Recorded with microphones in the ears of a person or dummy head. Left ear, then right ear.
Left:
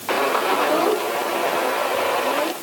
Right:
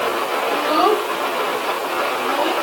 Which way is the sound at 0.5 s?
50° right (ahead or behind).